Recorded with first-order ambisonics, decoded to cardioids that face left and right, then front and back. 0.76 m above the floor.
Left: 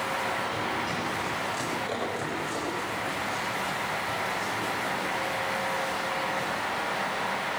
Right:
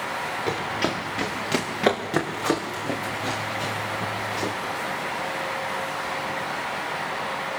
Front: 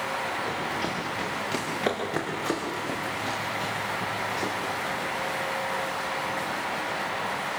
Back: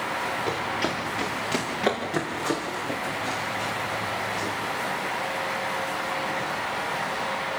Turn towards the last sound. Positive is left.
turn(degrees=-65)